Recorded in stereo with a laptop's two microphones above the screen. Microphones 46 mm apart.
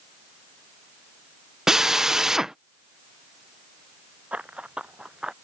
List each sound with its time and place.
1.7 s a drill: 15° right (ahead or behind)
4.3 s running footsteps: 25° right (ahead or behind); by 5.3 s 15° right (ahead or behind)